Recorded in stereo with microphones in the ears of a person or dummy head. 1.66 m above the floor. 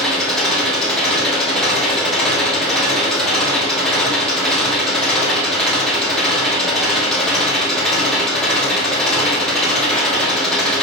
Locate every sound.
0.0 s an engine running: centre (ahead or behind), 1.9 m